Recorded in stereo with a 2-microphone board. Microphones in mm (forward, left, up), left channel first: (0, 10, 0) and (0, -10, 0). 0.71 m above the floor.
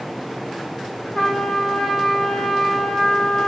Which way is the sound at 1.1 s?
20° left (ahead or behind).